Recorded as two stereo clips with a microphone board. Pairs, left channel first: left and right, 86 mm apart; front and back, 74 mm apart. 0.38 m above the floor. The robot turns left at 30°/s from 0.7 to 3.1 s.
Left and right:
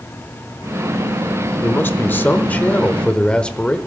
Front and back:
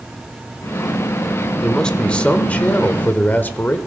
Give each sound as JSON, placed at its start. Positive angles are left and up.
{"t": 1.6, "sound": "a man speaking", "azimuth_deg": 70, "distance_m": 0.9}